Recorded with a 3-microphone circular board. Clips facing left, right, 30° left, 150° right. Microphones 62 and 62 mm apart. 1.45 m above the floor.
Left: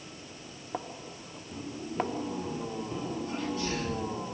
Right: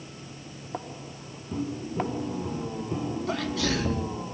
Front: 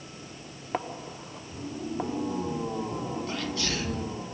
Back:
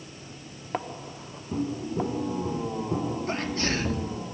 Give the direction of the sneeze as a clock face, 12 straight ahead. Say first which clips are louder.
Right 6 dB, back 3 dB; 3 o'clock.